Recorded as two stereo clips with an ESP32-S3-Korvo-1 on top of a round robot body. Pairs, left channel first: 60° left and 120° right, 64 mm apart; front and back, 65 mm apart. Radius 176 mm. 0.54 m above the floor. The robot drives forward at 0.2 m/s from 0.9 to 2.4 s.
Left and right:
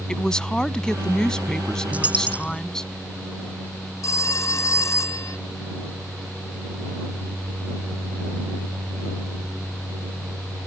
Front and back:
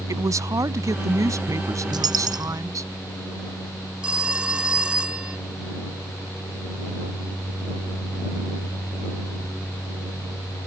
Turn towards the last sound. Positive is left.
turn(degrees=105)